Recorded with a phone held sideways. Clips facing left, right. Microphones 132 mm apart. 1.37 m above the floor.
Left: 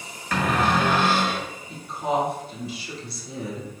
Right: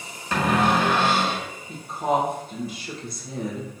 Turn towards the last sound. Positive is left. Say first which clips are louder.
# right 2 dB
turn(degrees=-45)  # may be behind; listen again after turning